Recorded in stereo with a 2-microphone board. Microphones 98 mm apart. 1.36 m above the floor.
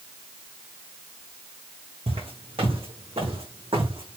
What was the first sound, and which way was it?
Footsteps, 75° right (ahead or behind).